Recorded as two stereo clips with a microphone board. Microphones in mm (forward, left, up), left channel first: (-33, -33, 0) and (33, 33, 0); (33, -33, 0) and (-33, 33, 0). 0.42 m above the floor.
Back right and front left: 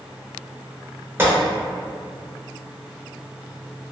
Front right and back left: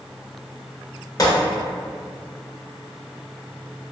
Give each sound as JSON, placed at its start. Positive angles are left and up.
{"t": 1.2, "sound": "a gunshot", "azimuth_deg": -15, "distance_m": 0.6}